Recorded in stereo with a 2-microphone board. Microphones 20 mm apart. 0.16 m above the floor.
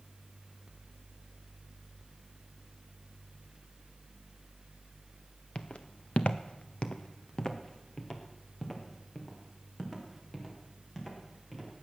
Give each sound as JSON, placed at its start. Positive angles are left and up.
{"t": 5.5, "sound": "footsteps", "side_deg": 50, "distance_m": 0.9}